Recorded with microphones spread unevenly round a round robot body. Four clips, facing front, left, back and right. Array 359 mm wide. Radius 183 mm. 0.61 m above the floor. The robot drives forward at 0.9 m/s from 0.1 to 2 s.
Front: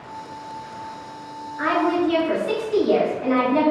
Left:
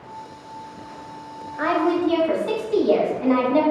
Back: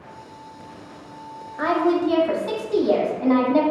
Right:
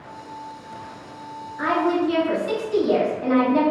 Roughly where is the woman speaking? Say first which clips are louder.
Left 1 dB, back 1 dB; behind left.